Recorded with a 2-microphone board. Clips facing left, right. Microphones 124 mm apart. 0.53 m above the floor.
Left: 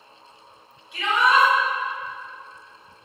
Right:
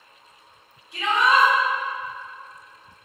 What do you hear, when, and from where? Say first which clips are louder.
0.9 s a shout: even; 40° right (ahead or behind), 1.6 m